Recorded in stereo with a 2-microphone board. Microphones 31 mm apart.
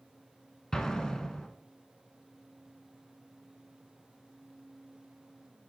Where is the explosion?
20° left (ahead or behind), 0.8 m.